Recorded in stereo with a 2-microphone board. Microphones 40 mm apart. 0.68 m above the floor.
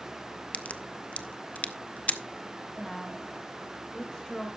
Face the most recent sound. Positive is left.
turn(degrees=15)  # may be behind; listen again after turning